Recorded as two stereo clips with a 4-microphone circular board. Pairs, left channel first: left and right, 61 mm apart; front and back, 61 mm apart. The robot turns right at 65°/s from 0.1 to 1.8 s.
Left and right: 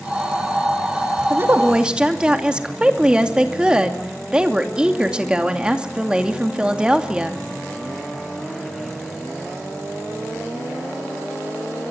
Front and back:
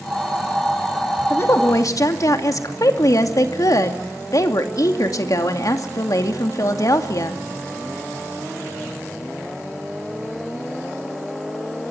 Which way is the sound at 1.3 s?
50° right.